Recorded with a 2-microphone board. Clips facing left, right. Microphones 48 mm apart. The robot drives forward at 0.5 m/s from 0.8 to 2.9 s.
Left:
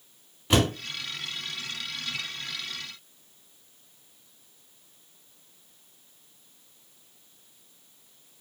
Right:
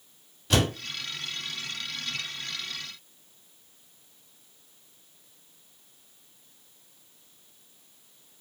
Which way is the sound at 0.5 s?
20° left (ahead or behind).